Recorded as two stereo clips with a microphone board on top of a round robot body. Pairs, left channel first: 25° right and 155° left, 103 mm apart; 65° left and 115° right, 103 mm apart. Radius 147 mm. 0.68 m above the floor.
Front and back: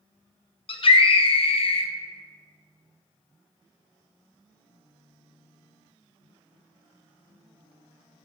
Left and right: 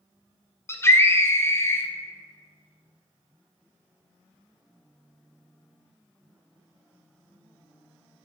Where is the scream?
Straight ahead, 1.1 m.